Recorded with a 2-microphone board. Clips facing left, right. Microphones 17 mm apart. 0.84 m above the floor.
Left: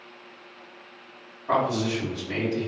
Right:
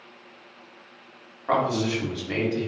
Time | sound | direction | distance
1.5 | a man speaking | 55° right (ahead or behind) | 1.6 m